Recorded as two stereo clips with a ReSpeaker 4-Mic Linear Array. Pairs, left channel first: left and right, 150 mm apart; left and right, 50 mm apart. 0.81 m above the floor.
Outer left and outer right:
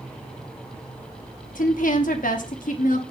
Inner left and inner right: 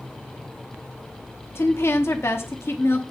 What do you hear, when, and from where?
1.6 s a woman speaking: 60° left (ahead or behind), 1.0 m